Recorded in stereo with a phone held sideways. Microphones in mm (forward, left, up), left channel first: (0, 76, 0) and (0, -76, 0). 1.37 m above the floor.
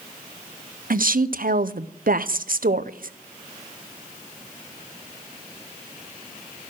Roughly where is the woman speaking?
Right.